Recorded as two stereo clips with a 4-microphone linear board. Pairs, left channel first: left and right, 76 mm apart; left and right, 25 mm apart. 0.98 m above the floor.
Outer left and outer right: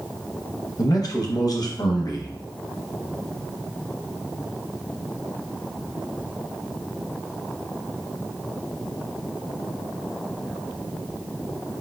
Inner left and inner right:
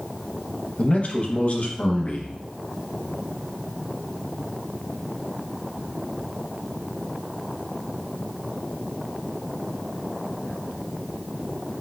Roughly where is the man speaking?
Left.